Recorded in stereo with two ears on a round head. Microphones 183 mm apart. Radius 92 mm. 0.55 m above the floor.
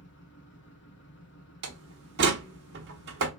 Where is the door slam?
55° right (ahead or behind), 1.1 m.